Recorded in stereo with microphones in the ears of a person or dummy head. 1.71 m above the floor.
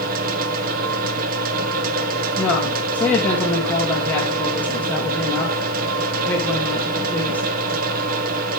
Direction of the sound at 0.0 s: 55° right (ahead or behind).